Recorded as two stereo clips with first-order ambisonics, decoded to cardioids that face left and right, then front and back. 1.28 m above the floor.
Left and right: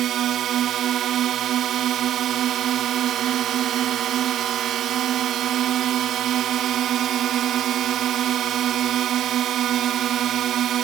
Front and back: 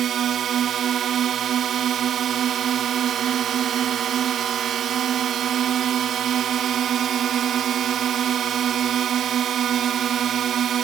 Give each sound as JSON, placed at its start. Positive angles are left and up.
{"t": 0.0, "sound": "a drone", "azimuth_deg": -130}